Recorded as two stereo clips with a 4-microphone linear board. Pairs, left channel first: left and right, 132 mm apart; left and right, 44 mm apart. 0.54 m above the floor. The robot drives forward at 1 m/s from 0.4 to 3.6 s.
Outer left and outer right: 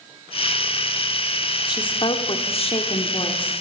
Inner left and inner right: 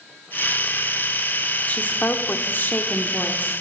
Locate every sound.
1.7 s a woman speaking: 30° left (ahead or behind), 1.5 m